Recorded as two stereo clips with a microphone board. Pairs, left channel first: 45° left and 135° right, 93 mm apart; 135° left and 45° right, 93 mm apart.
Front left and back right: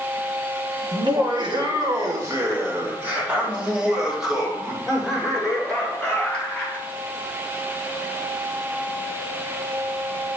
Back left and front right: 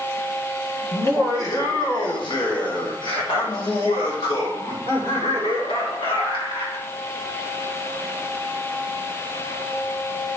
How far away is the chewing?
No chewing in this recording.